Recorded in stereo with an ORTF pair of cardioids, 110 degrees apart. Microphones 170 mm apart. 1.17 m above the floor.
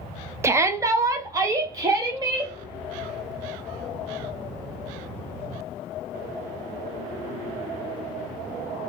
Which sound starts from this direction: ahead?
A shout, at 0.4 s.